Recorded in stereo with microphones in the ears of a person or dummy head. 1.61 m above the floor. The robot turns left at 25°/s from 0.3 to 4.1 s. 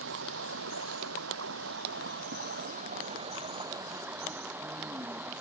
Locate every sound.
0.0 s running water: 75° right; by 5.4 s 170° right